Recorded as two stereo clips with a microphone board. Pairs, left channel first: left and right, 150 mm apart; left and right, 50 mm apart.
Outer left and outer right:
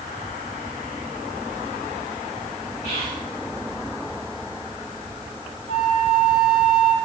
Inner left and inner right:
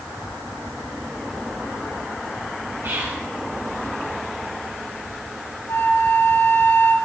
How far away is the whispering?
About 3 m.